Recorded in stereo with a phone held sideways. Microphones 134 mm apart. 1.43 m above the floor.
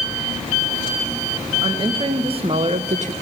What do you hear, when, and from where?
1.6 s a woman speaking: 35° right (ahead or behind), 2 m; by 3.1 s 65° right (ahead or behind), 0.6 m